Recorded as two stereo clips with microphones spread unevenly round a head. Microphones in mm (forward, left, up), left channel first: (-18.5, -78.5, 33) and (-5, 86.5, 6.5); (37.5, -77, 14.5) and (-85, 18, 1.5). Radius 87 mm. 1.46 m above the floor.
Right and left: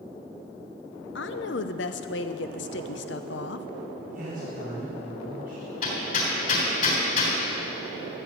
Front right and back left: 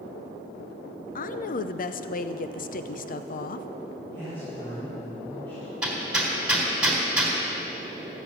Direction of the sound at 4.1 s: 40° left.